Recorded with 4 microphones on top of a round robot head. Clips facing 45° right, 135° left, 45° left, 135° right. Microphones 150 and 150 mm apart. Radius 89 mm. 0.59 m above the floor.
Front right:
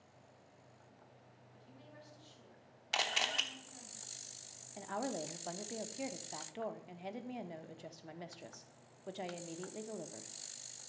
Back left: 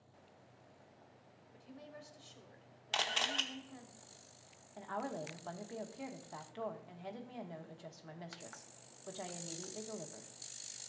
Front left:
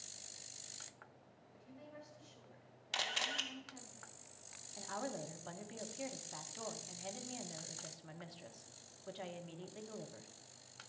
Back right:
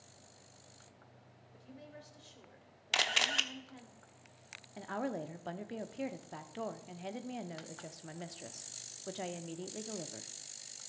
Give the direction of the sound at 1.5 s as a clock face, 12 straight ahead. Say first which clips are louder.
Back left 5 dB, back right 2 dB; 6 o'clock.